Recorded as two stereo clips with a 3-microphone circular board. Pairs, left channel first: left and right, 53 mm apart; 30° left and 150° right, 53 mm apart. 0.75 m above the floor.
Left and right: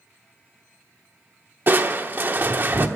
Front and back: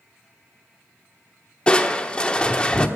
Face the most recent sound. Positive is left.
turn(degrees=-40)